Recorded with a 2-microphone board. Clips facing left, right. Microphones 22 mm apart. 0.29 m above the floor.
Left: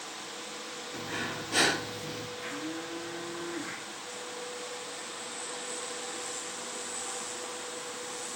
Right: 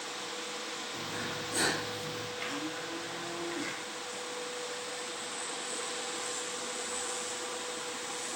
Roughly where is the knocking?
I don't hear knocking.